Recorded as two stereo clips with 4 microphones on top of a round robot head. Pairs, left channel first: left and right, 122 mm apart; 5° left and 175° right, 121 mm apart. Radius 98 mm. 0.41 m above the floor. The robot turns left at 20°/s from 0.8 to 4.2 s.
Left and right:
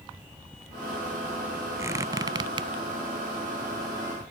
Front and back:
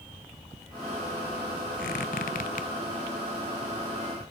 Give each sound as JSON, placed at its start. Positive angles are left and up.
{"t": 1.8, "sound": "a squeak", "azimuth_deg": -20, "distance_m": 0.6}